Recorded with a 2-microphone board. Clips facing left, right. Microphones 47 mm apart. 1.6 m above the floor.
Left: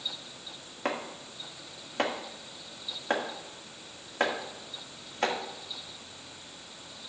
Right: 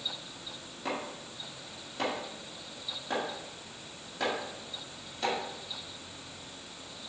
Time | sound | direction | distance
0.8 | chopping | 55° left (ahead or behind) | 1.9 m